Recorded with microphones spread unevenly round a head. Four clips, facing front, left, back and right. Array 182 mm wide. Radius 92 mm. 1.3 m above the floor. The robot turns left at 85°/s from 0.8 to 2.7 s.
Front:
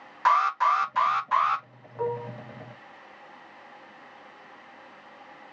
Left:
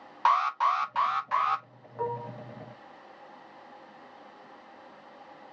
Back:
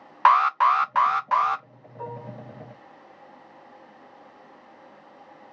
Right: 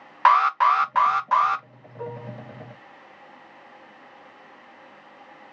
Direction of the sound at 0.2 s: 110° right.